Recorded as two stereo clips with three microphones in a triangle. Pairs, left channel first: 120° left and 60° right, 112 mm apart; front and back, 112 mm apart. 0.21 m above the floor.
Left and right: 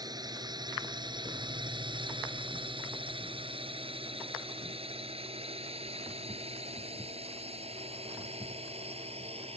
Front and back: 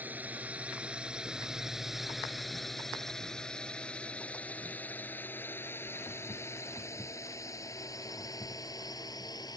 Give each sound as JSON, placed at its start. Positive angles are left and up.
{"t": 0.0, "sound": "a drone", "azimuth_deg": -105}